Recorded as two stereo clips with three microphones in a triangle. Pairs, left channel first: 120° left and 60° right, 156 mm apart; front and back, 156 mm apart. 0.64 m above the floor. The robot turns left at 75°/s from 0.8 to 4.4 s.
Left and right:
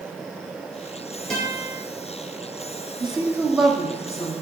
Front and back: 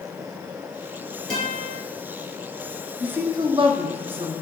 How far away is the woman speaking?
About 0.6 m.